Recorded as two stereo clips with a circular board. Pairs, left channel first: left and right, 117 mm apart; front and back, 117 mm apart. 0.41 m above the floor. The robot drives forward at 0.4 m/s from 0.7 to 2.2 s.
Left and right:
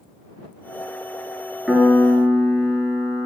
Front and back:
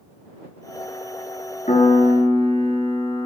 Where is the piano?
5° right, 1.4 m.